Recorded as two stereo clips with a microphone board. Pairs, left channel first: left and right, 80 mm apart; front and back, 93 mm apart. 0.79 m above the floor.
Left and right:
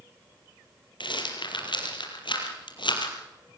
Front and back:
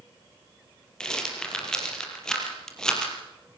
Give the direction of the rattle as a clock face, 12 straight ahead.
9 o'clock.